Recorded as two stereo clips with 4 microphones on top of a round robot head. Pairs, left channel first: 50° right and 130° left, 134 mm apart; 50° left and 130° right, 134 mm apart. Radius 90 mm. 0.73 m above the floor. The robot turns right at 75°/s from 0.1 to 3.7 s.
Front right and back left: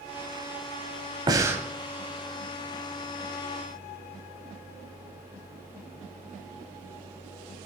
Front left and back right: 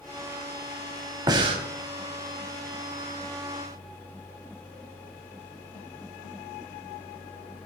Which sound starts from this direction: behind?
Breathing, at 1.3 s.